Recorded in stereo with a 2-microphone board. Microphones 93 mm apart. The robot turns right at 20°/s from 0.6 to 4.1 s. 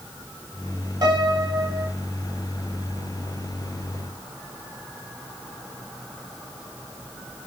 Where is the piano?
50° right (ahead or behind), 3.5 m; by 1.9 s 30° right (ahead or behind), 3.5 m.